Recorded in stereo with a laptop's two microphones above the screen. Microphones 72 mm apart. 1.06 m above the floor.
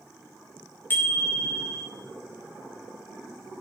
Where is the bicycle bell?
30° left (ahead or behind), 2.5 m.